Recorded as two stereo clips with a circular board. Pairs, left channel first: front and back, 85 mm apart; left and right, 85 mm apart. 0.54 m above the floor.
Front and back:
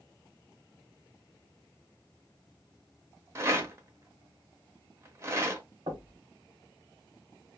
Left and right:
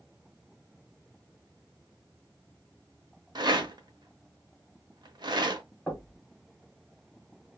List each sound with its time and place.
3.4 s a rattle: 120° right, 0.8 m
5.9 s knocking: 170° left, 1.4 m